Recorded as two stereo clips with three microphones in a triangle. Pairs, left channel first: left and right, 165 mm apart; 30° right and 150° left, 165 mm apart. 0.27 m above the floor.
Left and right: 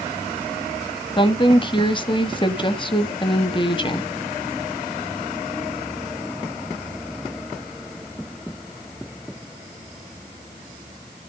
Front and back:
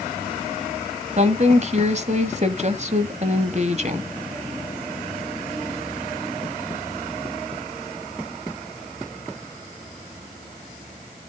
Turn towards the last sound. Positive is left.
turn(degrees=135)